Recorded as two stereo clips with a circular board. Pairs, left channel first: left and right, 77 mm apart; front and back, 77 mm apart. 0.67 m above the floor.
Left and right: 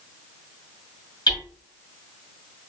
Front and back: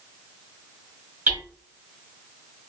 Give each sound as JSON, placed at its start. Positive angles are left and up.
{"t": 1.3, "sound": "hammering", "azimuth_deg": 115, "distance_m": 3.0}